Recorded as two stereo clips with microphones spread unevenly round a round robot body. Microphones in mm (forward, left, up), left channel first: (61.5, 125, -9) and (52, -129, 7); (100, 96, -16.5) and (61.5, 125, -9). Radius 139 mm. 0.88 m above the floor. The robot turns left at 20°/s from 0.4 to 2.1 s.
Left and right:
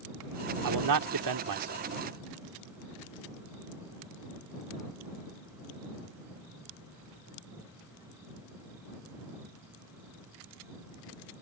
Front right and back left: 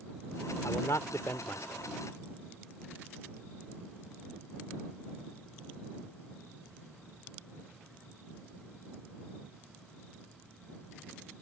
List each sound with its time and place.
0.6 s a man speaking: 90° right; by 1.9 s 115° right